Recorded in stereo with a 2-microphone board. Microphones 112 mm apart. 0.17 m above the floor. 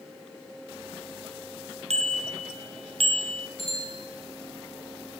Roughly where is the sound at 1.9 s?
Right.